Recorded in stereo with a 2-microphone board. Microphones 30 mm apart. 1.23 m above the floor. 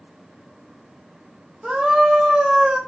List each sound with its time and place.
1.6 s a scream: 25° right (ahead or behind), 1.5 m